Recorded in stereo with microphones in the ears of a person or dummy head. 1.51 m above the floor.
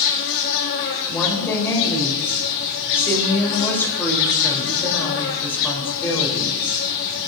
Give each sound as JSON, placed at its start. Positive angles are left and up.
{"t": 0.0, "sound": "an insect", "side_deg": 60, "distance_m": 1.5}
{"t": 1.1, "sound": "a woman speaking", "side_deg": 20, "distance_m": 3.5}